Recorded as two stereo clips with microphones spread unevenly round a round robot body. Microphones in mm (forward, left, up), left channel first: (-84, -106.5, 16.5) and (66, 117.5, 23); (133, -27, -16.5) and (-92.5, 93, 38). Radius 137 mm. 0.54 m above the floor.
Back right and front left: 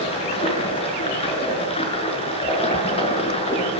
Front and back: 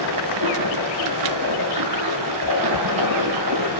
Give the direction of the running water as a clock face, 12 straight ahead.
6 o'clock.